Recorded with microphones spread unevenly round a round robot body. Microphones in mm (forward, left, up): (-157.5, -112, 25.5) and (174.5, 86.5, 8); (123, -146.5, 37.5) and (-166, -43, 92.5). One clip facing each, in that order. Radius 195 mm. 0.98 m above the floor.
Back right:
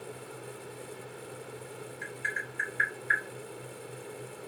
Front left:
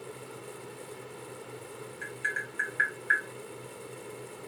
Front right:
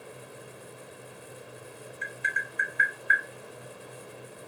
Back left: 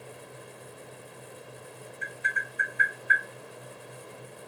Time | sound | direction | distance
2.0 | tapping | 40° right | 1.0 m